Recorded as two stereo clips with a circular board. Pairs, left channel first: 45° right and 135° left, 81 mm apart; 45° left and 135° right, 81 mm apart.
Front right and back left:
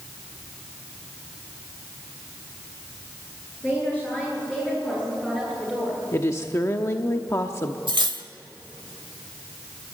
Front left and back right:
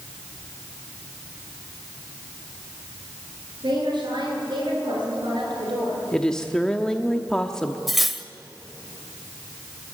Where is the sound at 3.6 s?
110° right, 9.5 m; by 6.0 s 135° right, 9 m.